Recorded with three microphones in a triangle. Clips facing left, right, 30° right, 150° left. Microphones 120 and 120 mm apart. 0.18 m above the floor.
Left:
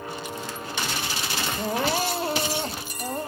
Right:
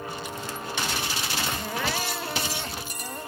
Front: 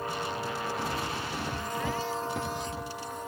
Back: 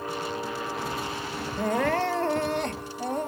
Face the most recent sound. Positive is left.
turn(degrees=140)